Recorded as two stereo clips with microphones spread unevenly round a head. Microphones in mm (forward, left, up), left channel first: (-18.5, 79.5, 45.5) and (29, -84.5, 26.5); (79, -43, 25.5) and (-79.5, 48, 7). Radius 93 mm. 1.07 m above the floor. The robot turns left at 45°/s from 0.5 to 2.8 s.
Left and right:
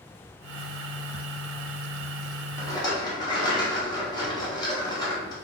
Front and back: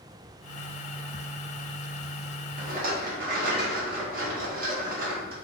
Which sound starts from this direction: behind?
A rattle, at 2.6 s.